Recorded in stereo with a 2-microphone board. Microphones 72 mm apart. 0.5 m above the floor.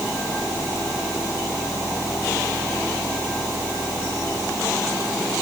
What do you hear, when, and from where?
Only background noise.